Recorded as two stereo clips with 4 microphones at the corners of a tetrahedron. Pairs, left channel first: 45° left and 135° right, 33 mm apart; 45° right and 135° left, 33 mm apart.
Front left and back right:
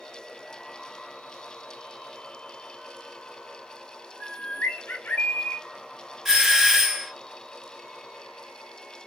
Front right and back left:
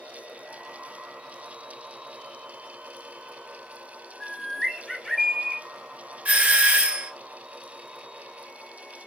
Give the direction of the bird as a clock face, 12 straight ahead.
10 o'clock.